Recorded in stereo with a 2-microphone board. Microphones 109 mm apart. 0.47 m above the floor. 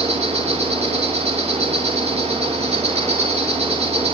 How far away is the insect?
About 6 m.